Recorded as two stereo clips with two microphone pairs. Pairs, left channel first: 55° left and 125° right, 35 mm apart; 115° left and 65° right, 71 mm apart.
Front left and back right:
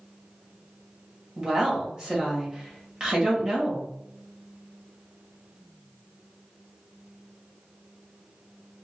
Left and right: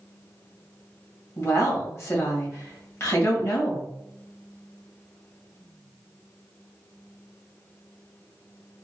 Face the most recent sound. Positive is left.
turn(degrees=160)